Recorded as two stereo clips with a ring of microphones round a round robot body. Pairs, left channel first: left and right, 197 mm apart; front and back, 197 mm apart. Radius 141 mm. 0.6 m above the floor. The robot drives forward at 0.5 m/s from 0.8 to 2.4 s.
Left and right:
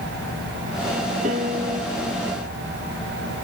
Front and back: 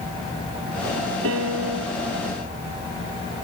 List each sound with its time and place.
1.2 s a piano: 155° right